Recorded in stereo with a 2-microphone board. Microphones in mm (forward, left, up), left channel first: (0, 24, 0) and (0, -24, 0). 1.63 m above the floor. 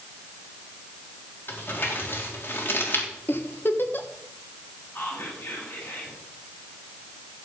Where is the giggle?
45° left (ahead or behind), 1.4 m.